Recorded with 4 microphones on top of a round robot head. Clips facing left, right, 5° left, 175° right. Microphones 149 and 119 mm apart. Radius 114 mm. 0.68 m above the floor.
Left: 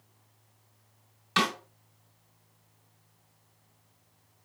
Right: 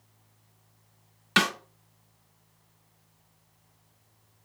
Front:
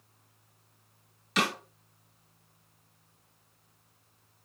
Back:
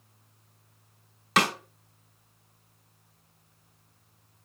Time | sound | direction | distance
1.4 | a snare drum | 130° right | 1.5 m